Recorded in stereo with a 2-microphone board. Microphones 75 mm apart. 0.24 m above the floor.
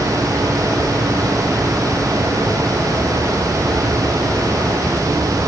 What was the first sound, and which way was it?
Only background noise.